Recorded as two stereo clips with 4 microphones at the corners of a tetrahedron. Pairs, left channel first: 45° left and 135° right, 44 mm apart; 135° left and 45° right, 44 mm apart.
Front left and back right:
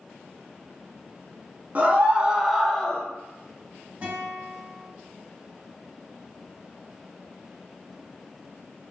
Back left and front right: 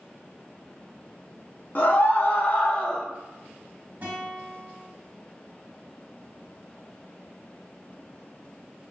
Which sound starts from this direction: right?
A guitar, at 4.0 s.